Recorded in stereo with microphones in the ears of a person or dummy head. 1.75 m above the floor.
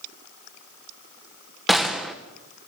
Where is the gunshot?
Centre (ahead or behind), 1.7 m.